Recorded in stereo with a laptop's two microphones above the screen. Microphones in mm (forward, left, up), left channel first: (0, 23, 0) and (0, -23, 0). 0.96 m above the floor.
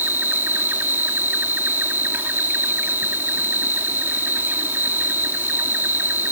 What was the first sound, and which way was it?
An insect, 50° right (ahead or behind).